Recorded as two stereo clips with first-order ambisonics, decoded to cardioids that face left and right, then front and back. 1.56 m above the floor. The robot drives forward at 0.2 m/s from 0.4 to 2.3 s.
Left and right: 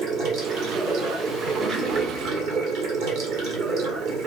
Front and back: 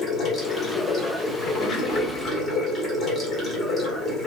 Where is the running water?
60° right, 1.4 m; by 4.3 s 75° right, 1.3 m.